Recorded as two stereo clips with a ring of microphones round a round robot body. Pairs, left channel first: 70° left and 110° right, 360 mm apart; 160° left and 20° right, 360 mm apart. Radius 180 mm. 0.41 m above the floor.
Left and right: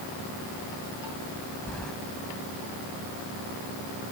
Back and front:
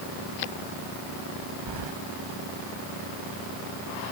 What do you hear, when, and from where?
1.7 s keys jangling: 20° right